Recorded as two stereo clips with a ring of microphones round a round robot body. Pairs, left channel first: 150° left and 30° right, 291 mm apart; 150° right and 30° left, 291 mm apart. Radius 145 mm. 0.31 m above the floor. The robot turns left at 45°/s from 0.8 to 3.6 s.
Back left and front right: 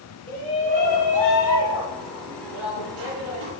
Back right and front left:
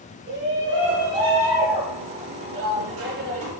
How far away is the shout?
About 6 m.